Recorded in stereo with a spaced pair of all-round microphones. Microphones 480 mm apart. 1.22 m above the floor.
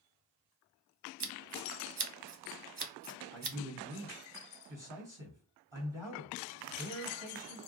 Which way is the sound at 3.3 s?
80° right.